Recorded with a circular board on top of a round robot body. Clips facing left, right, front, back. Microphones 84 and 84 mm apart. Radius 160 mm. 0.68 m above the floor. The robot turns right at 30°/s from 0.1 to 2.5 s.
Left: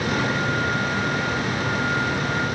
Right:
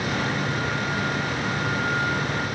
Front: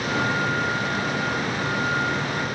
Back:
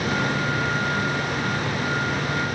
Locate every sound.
Only background noise.